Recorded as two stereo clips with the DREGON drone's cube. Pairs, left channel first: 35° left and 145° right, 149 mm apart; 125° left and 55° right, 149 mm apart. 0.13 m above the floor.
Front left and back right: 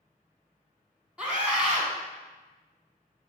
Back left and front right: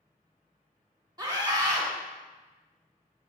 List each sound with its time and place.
1.2 s a scream: 70° right, 1.5 m